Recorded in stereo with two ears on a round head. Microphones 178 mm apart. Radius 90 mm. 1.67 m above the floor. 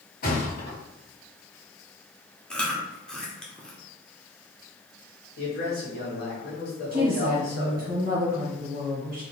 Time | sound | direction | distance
0.2 | a thud | 45° left (ahead or behind) | 1.6 m
2.5 | chewing | 5° left (ahead or behind) | 0.7 m
5.4 | a man speaking | 50° left (ahead or behind) | 1.6 m
6.9 | a woman speaking | 25° right (ahead or behind) | 1.0 m